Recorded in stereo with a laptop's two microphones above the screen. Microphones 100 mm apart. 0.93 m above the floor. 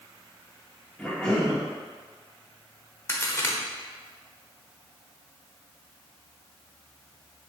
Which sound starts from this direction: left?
A crack, at 3.1 s.